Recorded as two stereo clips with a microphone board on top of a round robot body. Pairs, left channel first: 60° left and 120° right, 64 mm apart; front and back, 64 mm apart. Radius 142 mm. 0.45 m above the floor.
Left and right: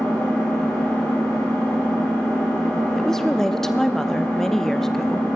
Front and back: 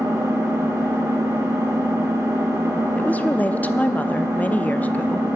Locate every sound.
0.0 s an engine running: 135° left, 6.5 m
3.0 s a woman speaking: 15° right, 0.7 m